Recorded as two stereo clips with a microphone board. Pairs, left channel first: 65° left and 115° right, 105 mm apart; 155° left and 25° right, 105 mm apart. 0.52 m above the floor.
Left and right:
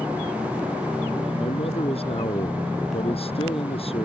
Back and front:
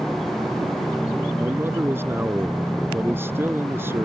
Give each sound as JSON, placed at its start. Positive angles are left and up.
{"t": 1.4, "sound": "a man speaking", "azimuth_deg": 45}